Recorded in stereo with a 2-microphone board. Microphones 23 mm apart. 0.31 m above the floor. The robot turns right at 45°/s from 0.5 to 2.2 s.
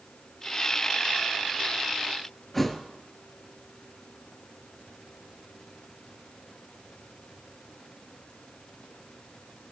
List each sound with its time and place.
2.5 s a thud: 10° left (ahead or behind), 1.4 m